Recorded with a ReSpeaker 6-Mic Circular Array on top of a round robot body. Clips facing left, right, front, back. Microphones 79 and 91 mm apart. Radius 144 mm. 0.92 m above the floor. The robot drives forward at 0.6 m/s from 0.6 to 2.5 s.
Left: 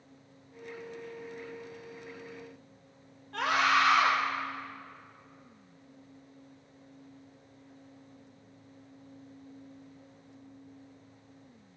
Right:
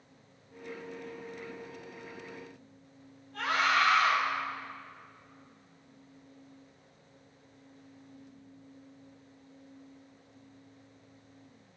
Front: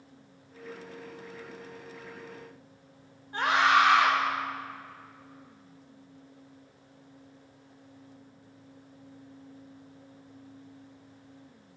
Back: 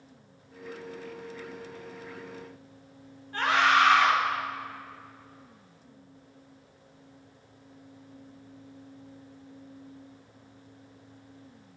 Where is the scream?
70° left, 4.5 m.